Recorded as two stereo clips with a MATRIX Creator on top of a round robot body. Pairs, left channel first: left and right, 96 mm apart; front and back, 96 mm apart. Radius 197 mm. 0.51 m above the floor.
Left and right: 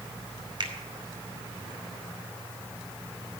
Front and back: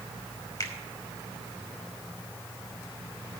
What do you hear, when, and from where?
0.6 s a finger snap: 50° right, 3 m